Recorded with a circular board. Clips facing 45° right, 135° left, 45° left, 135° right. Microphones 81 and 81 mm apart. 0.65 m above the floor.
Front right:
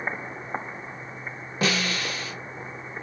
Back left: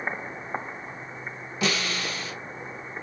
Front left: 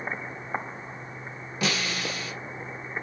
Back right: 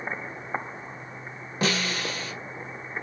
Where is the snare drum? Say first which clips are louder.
Front right 2 dB, back right 2 dB; 85° right, 1.0 m.